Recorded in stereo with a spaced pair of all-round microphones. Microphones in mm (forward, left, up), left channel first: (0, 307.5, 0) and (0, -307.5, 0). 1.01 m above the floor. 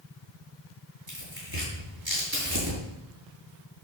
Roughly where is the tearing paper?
Right.